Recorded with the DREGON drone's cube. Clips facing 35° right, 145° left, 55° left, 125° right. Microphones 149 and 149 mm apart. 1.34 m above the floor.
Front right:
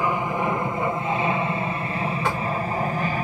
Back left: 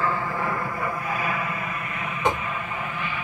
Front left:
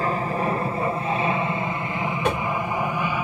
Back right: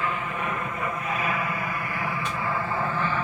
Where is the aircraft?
30° left; by 3.2 s 20° right.